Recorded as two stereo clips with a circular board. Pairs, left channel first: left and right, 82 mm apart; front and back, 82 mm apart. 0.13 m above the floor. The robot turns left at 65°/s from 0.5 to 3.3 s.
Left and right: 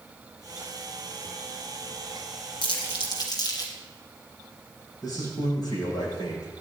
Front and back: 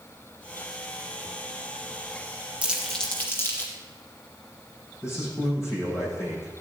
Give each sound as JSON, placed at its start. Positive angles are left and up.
{"t": 2.6, "sound": "crumpling", "azimuth_deg": 105, "distance_m": 3.0}
{"t": 5.0, "sound": "a man speaking", "azimuth_deg": 55, "distance_m": 6.5}